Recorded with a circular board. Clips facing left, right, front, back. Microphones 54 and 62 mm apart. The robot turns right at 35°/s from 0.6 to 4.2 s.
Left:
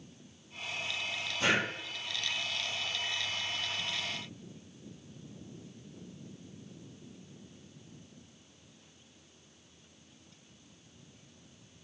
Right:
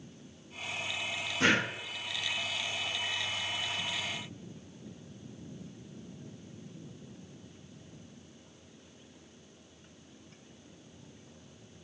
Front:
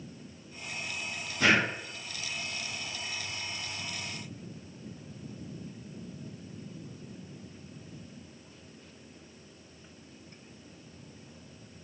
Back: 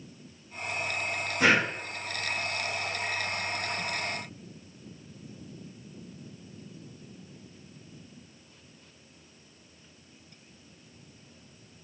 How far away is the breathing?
About 2 m.